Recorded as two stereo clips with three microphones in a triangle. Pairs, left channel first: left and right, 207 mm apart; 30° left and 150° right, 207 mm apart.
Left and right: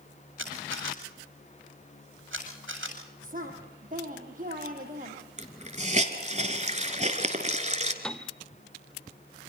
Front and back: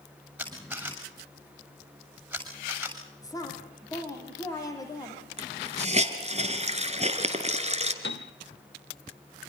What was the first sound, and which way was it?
A camera shutter, 65° right.